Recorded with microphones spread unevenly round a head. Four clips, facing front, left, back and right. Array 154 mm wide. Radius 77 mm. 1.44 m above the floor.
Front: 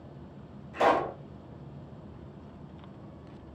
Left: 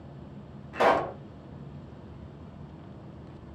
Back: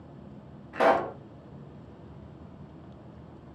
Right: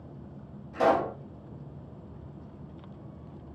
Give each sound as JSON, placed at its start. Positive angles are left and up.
{"t": 0.7, "sound": "a pop", "azimuth_deg": 170, "distance_m": 0.9}